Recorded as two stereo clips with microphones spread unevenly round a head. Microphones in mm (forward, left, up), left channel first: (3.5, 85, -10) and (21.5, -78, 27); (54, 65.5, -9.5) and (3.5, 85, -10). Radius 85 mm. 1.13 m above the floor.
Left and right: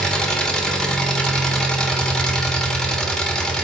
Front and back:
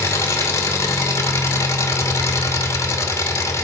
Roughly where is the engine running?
Ahead.